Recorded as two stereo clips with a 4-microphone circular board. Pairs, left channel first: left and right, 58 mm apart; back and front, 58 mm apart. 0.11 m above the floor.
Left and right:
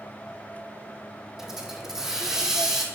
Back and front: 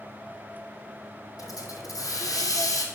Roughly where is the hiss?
Behind.